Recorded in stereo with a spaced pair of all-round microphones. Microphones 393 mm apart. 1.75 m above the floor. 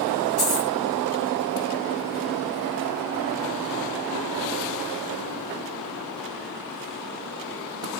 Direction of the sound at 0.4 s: 50° left (ahead or behind).